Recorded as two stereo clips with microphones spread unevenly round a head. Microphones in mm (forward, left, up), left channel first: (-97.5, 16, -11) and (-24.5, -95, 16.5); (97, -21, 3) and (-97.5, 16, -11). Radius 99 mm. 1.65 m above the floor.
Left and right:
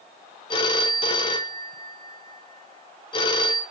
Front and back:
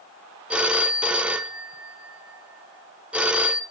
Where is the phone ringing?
80° left, 0.6 m.